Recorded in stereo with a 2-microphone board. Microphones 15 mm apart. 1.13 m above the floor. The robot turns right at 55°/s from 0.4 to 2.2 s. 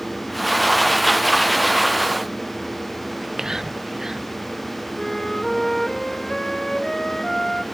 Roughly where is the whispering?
Right.